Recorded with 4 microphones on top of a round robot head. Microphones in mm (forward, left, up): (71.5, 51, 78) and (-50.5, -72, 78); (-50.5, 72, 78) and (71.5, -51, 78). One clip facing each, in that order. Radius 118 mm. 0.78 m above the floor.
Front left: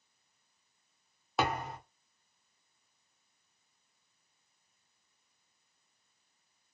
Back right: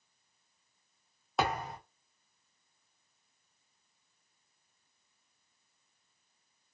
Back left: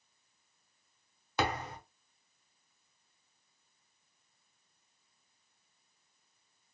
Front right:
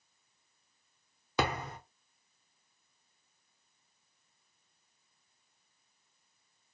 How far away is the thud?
About 0.7 m.